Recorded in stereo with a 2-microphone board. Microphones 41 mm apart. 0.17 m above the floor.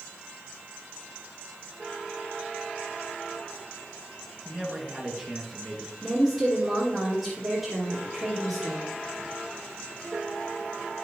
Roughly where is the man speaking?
Centre.